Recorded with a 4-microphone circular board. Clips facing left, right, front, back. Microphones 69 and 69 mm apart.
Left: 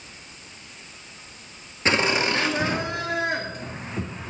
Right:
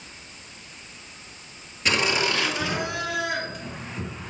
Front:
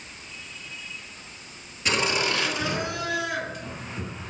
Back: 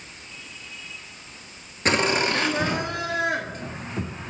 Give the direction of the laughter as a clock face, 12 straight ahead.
7 o'clock.